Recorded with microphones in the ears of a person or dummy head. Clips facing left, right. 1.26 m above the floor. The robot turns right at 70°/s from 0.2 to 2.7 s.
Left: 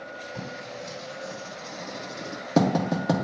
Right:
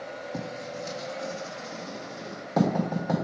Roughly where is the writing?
Right.